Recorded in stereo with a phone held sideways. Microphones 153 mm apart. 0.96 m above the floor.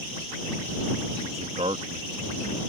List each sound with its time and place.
1.2 s a man speaking: 45° right (ahead or behind)